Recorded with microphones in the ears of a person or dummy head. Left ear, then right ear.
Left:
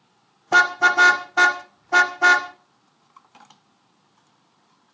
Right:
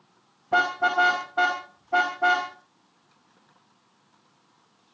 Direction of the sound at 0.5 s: 70° left (ahead or behind).